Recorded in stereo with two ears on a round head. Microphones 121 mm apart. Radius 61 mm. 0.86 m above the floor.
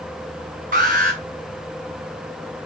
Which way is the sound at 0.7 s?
65° right (ahead or behind).